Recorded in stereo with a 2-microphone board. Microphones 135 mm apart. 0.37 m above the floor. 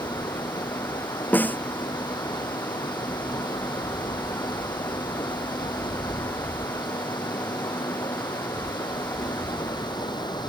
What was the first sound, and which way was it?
Running water, 30° left (ahead or behind).